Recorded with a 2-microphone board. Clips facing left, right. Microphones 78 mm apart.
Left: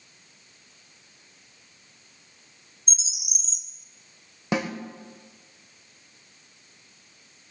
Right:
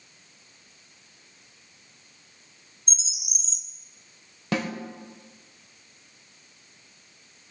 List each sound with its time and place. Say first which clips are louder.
2.9 s a bird: left 1 dB; 5° left (ahead or behind), 2 m
4.5 s a snare drum: left 1 dB; 15° left (ahead or behind), 2 m